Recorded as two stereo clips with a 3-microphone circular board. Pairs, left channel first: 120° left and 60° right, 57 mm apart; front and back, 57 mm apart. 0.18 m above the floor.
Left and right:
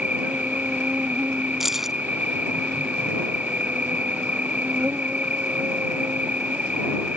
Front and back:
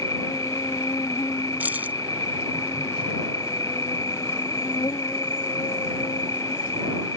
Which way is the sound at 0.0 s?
5° left.